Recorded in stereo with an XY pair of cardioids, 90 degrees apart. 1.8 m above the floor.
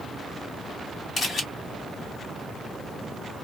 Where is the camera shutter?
55° left, 1.7 m.